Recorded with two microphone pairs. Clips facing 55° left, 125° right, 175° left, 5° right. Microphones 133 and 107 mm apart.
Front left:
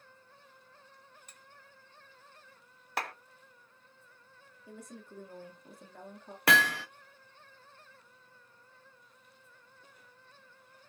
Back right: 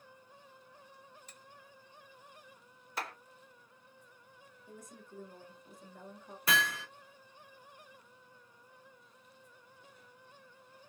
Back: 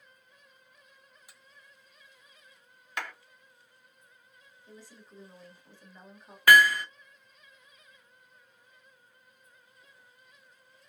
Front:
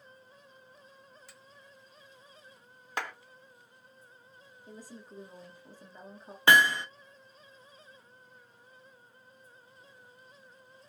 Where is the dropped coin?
No dropped coin in this recording.